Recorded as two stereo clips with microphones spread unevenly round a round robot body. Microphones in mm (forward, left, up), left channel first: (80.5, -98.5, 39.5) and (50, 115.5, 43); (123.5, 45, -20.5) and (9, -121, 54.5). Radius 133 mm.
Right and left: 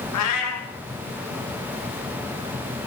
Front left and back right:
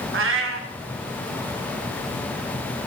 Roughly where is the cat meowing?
Right.